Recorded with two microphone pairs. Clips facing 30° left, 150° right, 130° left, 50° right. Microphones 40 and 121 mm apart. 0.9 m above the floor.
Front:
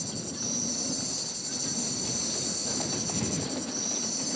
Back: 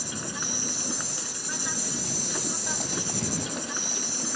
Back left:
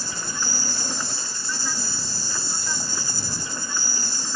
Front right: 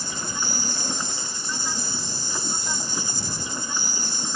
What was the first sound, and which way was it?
An insect, 120° right.